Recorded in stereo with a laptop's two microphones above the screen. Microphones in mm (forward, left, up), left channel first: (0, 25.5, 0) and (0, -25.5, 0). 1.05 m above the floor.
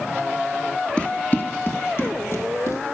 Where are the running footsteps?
20° left (ahead or behind), 1.0 m; by 2.8 s 60° left (ahead or behind), 2 m.